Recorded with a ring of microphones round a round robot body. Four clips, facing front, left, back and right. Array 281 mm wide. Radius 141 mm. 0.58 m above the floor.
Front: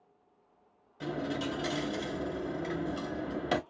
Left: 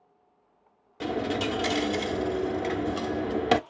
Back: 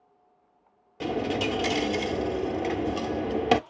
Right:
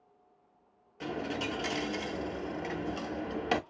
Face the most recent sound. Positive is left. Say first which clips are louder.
# left 7 dB, back 7 dB
turn(degrees=145)